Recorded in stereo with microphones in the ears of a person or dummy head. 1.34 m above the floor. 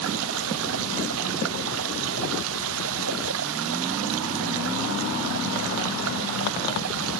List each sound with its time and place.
0.0 s running water: 75° right (ahead or behind), 0.8 m